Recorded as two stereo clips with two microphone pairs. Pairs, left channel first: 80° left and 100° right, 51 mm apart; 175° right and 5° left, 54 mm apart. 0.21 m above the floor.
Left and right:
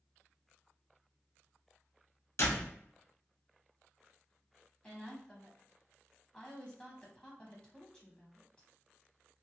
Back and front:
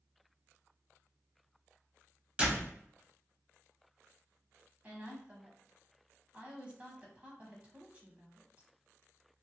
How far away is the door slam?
About 1.7 m.